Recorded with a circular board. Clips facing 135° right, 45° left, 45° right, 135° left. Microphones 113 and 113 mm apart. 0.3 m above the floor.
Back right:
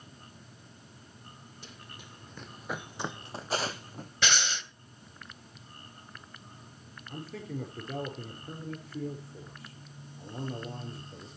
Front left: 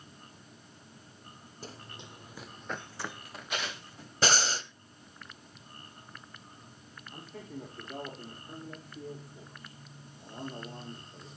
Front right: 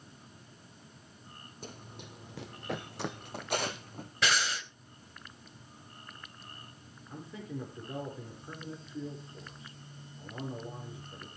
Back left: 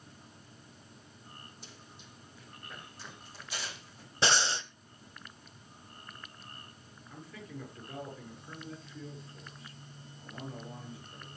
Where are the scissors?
No scissors in this recording.